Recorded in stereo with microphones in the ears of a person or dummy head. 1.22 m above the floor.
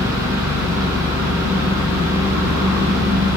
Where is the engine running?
50° right (ahead or behind), 0.9 m.